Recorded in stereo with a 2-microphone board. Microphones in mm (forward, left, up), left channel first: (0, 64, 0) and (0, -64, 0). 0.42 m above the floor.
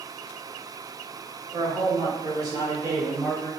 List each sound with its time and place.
1.5 s a man speaking: 35° right (ahead or behind), 1.8 m; by 3.5 s 10° right (ahead or behind), 1.8 m